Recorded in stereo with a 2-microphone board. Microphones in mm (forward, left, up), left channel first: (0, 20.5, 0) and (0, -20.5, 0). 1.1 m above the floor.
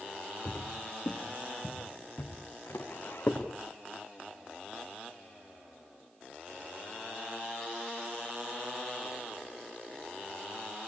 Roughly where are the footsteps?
Left.